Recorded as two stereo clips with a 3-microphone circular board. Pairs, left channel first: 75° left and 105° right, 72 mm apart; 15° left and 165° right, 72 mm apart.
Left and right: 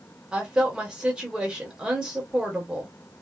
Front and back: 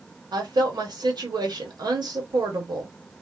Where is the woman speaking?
175° left, 1.2 m.